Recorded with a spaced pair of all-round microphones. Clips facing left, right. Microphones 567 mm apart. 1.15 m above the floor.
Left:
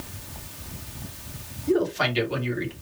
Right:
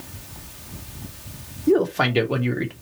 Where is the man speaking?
70° right (ahead or behind), 0.8 m.